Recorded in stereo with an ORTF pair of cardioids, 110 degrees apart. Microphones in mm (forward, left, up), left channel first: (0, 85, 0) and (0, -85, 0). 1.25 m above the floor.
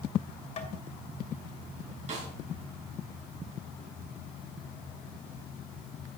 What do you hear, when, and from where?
0.6 s tapping: 40° left, 2.5 m
2.1 s a snare drum: 45° right, 5.5 m